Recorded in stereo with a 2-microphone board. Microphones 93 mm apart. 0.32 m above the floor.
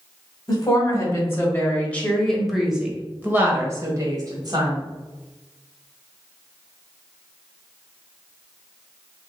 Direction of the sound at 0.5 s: 40° left (ahead or behind).